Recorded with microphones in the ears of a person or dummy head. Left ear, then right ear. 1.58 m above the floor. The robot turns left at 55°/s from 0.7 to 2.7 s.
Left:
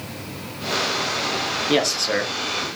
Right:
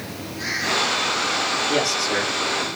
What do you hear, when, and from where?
1.7 s a man speaking: 85° left, 0.8 m; by 2.7 s 30° left, 0.8 m